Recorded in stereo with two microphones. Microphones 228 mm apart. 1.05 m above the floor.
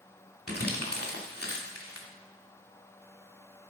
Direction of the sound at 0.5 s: 85° left.